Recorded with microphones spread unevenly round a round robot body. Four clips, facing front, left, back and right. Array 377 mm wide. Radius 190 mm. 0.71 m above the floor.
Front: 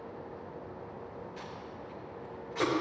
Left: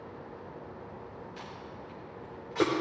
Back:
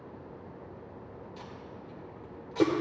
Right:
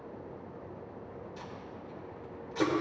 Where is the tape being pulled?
160° left, 1.7 m.